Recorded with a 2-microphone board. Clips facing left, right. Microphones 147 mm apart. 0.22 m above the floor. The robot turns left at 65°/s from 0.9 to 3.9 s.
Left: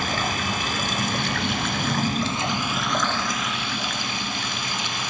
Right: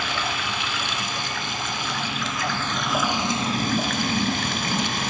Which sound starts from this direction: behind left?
Running water, at 0.0 s.